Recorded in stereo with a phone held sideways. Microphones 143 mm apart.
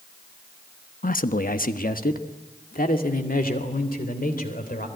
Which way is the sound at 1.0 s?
75° left (ahead or behind).